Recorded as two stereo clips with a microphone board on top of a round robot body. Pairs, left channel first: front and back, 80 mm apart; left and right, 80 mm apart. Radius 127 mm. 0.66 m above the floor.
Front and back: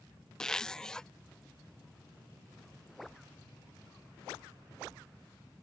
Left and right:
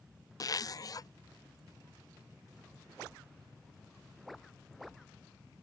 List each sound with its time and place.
0.4 s a zipper: 80° left